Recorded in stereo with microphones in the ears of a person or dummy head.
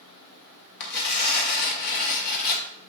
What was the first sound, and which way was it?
Tearing paper, 50° left (ahead or behind).